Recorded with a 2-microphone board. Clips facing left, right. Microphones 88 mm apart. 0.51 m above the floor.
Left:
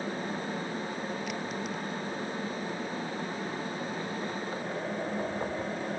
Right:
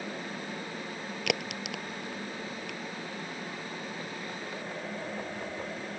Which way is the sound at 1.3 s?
80° right.